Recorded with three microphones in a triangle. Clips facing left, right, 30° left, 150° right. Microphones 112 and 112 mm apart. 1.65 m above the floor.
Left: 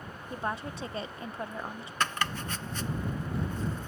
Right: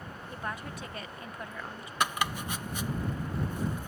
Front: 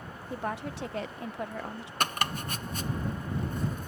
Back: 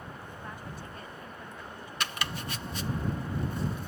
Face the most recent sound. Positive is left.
turn(degrees=-15)